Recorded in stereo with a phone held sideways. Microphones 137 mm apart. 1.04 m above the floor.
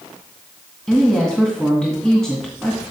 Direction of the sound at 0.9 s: 5° left (ahead or behind).